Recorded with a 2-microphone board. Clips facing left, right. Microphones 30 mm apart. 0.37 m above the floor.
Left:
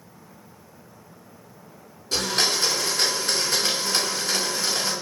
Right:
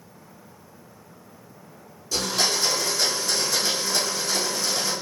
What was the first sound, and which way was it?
A blender, 65° left (ahead or behind).